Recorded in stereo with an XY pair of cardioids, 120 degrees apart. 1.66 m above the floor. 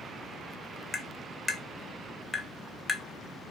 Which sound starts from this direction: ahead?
Tapping, at 0.9 s.